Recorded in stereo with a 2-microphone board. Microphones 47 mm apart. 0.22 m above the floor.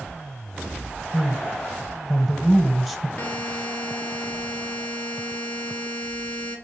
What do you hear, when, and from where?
1.1 s a man speaking: 5° right (ahead or behind), 1.2 m
3.2 s a buzzer: 40° left (ahead or behind), 1.8 m